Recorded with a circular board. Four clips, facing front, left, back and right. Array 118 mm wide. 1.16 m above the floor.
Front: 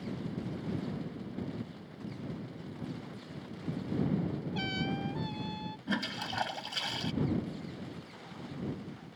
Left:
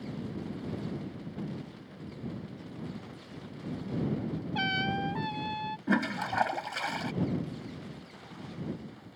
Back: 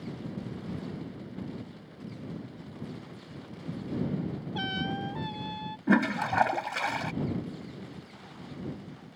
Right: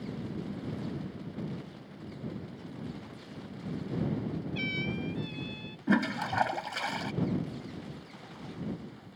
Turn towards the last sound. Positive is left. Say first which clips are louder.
# right 2 dB, back 12 dB
turn(degrees=175)